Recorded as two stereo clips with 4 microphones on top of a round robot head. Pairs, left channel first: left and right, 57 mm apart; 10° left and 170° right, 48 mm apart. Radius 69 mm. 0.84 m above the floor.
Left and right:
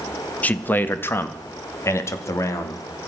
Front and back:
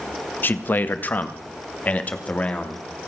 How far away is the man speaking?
About 1.5 m.